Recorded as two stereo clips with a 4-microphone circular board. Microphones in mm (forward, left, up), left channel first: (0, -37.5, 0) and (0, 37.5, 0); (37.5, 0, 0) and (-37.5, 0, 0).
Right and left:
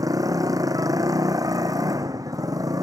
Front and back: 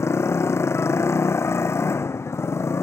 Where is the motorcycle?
55° left.